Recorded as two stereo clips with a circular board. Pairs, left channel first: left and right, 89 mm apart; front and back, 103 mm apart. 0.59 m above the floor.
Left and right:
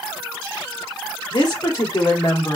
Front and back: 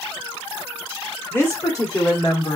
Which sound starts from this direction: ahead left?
A woman speaking, at 1.3 s.